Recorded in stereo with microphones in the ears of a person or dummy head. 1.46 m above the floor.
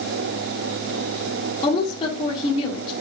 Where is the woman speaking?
35° left (ahead or behind), 3 m.